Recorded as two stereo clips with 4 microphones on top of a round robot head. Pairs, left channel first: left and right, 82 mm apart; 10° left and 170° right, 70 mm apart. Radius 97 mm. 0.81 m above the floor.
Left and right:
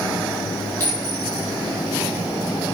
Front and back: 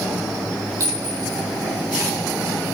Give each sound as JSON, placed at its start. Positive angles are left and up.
{"t": 0.8, "sound": "a clink", "azimuth_deg": 150, "distance_m": 5.5}